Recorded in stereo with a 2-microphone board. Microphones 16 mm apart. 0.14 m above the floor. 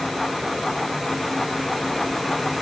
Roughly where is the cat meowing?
No cat meowing in this recording.